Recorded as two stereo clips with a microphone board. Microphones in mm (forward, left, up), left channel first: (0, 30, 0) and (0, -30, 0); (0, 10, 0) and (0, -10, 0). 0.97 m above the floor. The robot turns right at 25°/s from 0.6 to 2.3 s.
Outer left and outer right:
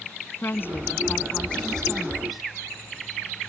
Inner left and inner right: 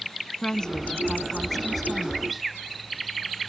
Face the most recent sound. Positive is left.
turn(degrees=180)